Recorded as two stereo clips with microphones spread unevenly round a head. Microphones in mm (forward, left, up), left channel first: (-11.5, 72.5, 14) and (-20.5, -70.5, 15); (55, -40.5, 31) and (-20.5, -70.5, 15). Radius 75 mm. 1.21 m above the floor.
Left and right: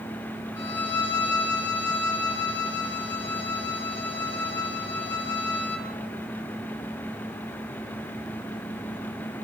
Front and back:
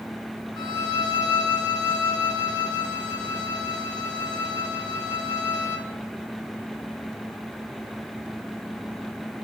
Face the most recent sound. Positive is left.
turn(degrees=10)